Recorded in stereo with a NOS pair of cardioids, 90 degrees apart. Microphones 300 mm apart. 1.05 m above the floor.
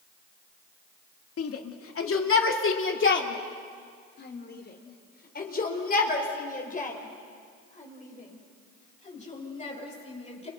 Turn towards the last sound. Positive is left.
turn(degrees=20)